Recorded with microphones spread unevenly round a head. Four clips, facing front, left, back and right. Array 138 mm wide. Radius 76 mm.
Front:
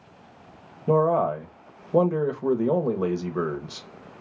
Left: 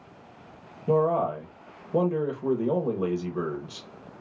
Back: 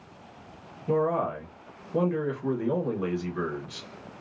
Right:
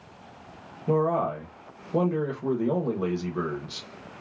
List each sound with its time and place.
0.9 s a man speaking: 5° left, 0.8 m